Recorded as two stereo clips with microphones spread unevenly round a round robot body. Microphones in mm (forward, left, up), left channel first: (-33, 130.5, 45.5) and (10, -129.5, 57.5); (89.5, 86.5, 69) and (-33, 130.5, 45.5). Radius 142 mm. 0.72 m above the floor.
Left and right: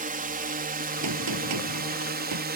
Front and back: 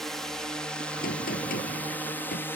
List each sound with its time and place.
0.0 s a drone: 120° right; by 2.6 s 100° right
1.0 s a gunshot: 50° right